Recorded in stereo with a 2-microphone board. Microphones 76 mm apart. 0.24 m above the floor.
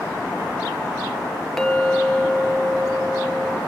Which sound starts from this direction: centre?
A clink, at 1.6 s.